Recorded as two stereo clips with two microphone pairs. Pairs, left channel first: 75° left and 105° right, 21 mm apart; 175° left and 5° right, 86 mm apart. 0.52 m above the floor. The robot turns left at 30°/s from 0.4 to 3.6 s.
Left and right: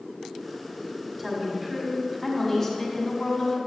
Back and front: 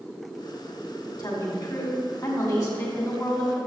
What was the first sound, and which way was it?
A woman speaking, 160° right.